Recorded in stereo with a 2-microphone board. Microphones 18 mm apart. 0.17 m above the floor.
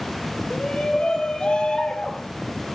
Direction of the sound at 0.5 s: 65° left (ahead or behind).